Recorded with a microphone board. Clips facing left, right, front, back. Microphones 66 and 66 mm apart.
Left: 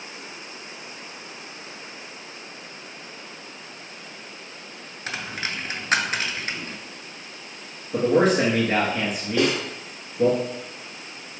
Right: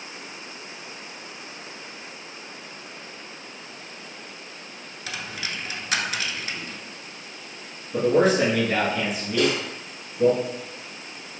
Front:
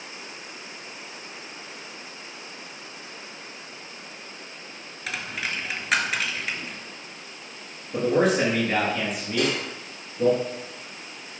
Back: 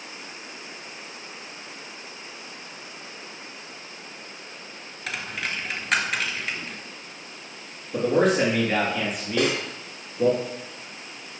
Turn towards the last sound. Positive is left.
turn(degrees=140)